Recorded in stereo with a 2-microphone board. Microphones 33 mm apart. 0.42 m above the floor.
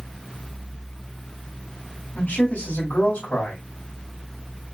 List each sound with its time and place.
2.1 s a man speaking: 55° left (ahead or behind), 2 m